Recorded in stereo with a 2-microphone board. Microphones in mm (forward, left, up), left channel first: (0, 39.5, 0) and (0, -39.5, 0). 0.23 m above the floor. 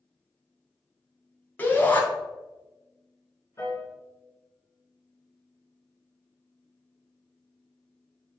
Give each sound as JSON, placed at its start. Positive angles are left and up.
{"t": 1.6, "sound": "a shout", "side_deg": 20, "distance_m": 2.5}
{"t": 3.6, "sound": "a piano", "side_deg": 35, "distance_m": 2.5}